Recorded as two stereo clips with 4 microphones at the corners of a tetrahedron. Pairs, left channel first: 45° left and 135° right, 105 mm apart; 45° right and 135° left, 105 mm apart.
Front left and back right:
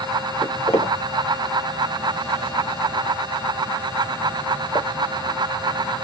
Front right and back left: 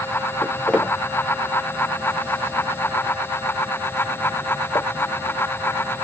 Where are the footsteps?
35° left, 3.5 m; by 4.9 s 5° left, 1.5 m.